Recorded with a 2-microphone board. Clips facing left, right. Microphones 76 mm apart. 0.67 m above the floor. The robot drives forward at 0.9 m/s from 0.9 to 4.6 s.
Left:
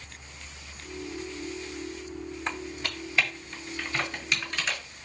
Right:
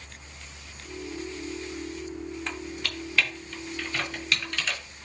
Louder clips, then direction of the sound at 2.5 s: Left 1 dB; 30° left (ahead or behind).